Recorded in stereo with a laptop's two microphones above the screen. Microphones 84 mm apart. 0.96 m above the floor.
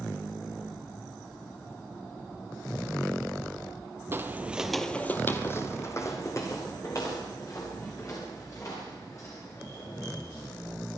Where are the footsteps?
30° right (ahead or behind), 1.3 m; by 10.7 s 40° left (ahead or behind), 9 m.